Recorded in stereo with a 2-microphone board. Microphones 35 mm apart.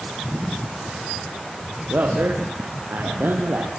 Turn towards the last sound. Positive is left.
turn(degrees=-65)  # may be behind; listen again after turning